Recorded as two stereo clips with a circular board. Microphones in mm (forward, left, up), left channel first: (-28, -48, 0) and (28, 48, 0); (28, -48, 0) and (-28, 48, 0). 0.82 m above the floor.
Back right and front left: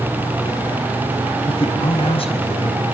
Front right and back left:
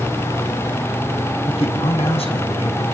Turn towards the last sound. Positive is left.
turn(degrees=-85)